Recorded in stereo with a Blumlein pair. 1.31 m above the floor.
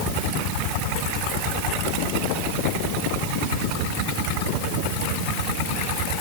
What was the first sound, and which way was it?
Only background noise.